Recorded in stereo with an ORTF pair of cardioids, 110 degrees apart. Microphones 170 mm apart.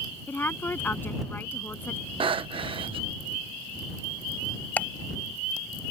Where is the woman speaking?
10° left.